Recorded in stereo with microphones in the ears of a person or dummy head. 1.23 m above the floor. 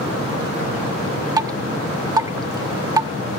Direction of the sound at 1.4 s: 20° right (ahead or behind).